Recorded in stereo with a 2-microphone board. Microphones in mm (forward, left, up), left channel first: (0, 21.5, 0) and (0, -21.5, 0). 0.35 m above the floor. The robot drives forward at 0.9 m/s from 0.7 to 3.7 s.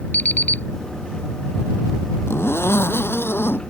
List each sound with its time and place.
0.1 s an alarm clock: 45° left (ahead or behind)
2.3 s a zipper: 75° left (ahead or behind); by 3.6 s 65° left (ahead or behind)